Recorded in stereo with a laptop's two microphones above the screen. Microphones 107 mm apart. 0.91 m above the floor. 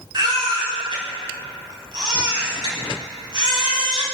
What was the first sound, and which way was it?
A baby crying, 50° right (ahead or behind).